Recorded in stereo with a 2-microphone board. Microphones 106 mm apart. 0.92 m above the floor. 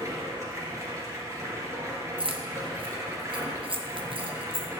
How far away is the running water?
About 1.7 m.